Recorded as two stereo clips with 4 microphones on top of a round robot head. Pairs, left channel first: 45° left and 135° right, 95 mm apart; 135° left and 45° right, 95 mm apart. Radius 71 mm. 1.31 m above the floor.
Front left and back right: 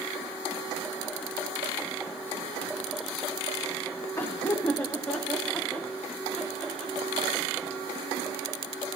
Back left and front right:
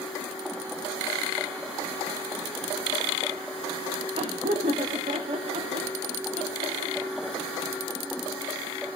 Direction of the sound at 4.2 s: 25° right.